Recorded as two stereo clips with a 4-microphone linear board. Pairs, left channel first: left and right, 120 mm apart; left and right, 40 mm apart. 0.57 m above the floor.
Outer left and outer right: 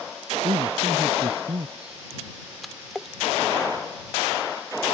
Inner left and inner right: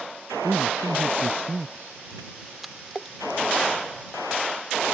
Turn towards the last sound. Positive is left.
turn(degrees=0)  # may be behind; listen again after turning